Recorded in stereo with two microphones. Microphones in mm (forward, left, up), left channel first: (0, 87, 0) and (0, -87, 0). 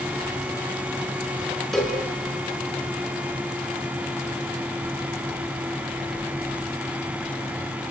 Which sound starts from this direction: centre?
A cowbell, at 1.7 s.